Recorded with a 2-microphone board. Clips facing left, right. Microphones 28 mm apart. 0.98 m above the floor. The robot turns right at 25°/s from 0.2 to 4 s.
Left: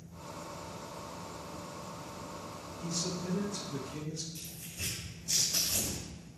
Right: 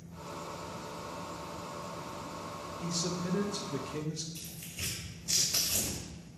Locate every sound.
2.8 s a man speaking: 120° right, 1.2 m; by 4.2 s 90° right, 1.2 m
4.3 s tearing paper: 80° right, 3 m